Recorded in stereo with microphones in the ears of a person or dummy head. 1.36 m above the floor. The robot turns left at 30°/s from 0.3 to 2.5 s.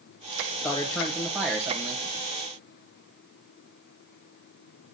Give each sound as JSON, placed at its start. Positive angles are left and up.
{"t": 0.6, "sound": "a man speaking", "azimuth_deg": 20, "distance_m": 0.9}